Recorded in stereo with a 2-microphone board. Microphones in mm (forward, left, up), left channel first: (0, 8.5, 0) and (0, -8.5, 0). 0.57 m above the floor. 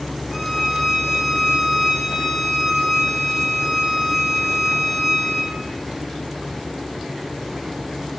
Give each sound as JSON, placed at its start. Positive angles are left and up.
{"t": 0.3, "sound": "a violin", "side_deg": -5, "distance_m": 1.4}